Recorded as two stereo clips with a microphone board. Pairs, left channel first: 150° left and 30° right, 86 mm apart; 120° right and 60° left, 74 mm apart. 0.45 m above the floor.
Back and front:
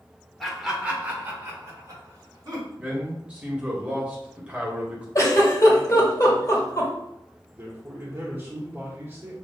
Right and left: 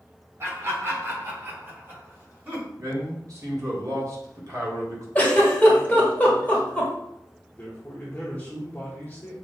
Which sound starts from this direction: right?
A man speaking, at 7.5 s.